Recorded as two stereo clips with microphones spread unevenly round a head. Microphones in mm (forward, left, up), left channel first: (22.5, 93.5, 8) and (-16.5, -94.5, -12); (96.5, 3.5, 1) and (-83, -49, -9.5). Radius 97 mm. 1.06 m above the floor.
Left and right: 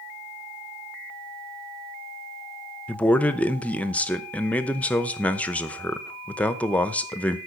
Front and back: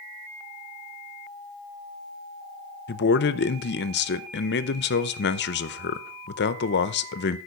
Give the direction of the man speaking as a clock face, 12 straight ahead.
12 o'clock.